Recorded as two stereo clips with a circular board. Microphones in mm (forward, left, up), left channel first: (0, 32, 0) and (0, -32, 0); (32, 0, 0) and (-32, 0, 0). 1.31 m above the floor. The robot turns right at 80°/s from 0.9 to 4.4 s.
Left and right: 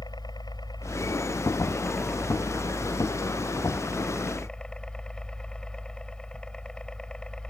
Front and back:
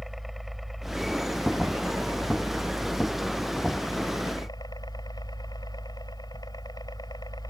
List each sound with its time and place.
0.0 s a helicopter: 95° left; by 7.5 s 15° left